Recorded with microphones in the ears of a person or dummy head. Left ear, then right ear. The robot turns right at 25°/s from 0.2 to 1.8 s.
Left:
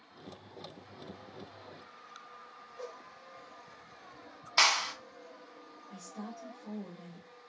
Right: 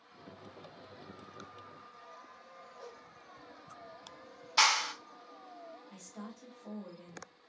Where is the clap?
Centre (ahead or behind), 0.6 m.